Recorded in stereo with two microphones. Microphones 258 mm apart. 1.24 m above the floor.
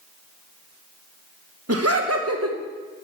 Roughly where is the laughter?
Right.